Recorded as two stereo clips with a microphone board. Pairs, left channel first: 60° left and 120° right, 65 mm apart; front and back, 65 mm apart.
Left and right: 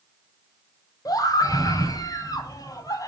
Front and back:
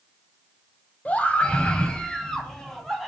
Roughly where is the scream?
Ahead left.